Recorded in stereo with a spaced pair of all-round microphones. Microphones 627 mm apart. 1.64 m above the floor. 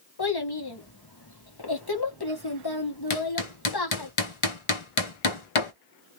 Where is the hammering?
50° left (ahead or behind), 0.8 m.